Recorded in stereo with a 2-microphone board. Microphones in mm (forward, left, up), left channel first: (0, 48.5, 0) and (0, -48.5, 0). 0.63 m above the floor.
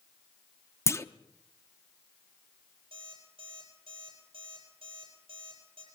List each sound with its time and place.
0.9 s a clunk: 30° left (ahead or behind), 0.7 m
2.9 s an alarm clock: 85° right, 9 m